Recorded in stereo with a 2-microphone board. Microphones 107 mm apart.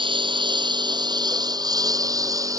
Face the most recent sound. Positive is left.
turn(degrees=-30)  # may be behind; listen again after turning